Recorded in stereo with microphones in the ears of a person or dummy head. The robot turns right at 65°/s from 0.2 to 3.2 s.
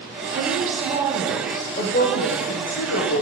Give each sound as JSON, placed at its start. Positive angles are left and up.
{"t": 0.3, "sound": "a woman speaking", "azimuth_deg": -65, "distance_m": 0.6}